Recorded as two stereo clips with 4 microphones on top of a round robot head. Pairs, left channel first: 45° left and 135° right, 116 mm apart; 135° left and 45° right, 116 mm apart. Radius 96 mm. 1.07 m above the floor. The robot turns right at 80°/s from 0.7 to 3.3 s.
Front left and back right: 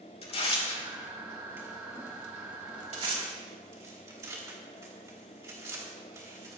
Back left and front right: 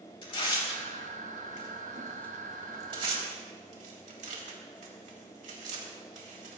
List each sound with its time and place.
0.2 s tearing paper: 85° left, 3.5 m; by 6.6 s 70° right, 3.5 m